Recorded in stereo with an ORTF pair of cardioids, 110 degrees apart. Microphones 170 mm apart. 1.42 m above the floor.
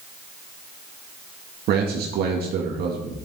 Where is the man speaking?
65° right, 1.9 m.